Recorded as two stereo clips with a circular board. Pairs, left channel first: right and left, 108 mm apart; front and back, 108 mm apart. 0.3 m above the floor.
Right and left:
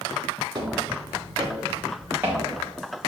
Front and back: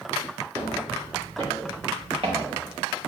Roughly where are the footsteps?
Behind left.